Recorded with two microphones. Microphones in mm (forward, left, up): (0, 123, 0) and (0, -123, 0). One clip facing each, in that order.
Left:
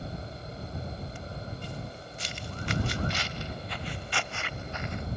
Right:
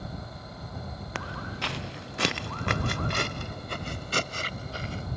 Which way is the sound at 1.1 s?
85° right.